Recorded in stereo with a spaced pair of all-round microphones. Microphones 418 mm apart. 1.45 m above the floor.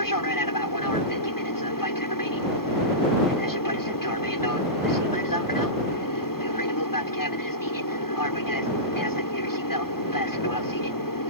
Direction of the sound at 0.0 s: 50° left (ahead or behind).